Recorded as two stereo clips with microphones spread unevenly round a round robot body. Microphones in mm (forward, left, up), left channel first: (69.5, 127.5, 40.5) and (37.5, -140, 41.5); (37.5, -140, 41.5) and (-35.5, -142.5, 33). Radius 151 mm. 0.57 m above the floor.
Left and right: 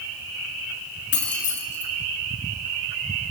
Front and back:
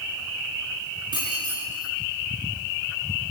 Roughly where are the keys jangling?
Behind left.